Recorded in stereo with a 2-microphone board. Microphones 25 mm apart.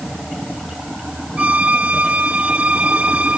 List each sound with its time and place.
1.4 s a violin: 65° right (ahead or behind)